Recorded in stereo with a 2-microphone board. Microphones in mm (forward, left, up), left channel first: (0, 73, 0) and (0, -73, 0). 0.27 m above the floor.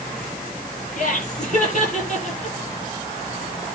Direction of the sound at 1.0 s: 55° left (ahead or behind).